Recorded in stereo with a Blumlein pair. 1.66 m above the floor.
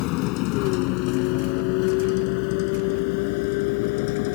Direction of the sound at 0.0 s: 40° left.